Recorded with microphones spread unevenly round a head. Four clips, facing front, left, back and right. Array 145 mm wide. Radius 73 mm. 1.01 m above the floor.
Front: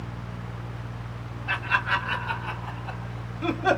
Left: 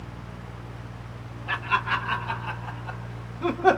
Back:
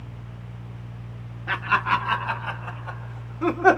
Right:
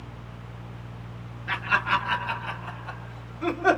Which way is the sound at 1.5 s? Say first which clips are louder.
Right 1 dB, back 4 dB; 175° left.